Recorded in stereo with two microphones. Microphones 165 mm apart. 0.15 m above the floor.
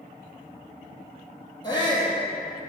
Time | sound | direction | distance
1.6 | a shout | 25° left (ahead or behind) | 4 m